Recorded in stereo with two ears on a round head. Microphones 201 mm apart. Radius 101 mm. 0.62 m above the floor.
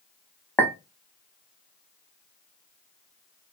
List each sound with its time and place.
0.6 s a clink: 10° left (ahead or behind), 0.9 m